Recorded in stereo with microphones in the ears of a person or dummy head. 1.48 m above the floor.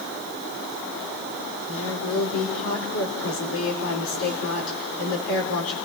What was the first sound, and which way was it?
A woman speaking, 85° left.